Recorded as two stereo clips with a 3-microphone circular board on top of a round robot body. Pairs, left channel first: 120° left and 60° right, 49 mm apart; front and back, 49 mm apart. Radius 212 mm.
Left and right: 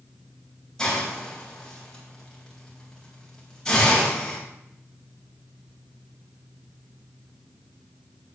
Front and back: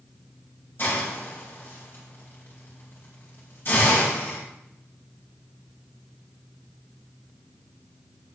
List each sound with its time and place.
0.8 s a hiss: 45° left, 4.5 m